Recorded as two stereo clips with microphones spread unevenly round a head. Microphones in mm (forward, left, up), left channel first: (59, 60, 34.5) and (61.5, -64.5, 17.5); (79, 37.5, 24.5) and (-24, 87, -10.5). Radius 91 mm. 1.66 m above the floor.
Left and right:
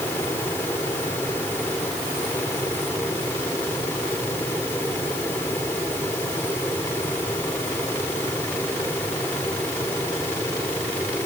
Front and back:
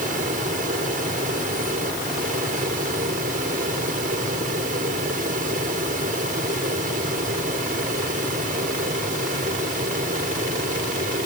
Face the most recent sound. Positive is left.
turn(degrees=170)